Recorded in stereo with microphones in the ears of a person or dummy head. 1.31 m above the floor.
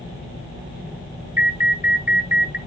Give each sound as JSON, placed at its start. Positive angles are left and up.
{"t": 1.4, "sound": "an alarm", "side_deg": -5, "distance_m": 2.0}